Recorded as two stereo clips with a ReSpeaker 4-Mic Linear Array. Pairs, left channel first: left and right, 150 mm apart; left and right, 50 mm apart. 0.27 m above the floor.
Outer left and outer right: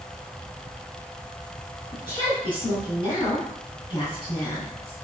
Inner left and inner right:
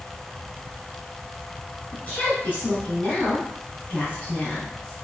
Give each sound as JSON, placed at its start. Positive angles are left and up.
{"t": 1.9, "sound": "a woman speaking", "side_deg": 35, "distance_m": 2.0}